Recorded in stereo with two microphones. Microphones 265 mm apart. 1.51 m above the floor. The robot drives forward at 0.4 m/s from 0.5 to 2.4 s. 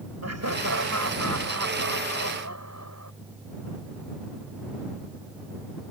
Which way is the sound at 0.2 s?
75° right (ahead or behind).